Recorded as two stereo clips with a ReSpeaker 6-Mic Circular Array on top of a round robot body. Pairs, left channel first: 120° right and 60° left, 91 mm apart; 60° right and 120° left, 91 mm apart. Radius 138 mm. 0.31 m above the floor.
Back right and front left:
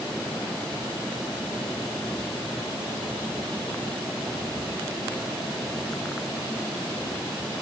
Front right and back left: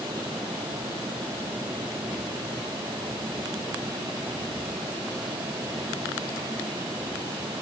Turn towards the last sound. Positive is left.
No sound to turn to.